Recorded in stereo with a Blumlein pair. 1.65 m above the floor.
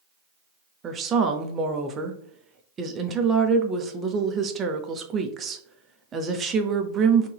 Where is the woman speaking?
20° right, 0.6 m.